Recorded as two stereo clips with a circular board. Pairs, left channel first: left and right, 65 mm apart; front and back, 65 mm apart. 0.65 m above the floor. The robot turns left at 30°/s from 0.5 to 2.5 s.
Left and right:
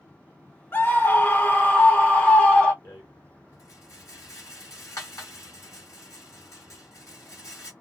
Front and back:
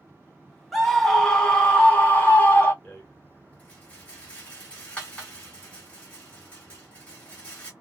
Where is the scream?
90° left, 1.4 m; by 2.7 s 35° left, 1.4 m.